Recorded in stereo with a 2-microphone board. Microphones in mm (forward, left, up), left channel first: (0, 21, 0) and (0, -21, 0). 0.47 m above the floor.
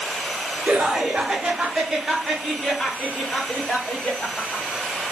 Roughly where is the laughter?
Right.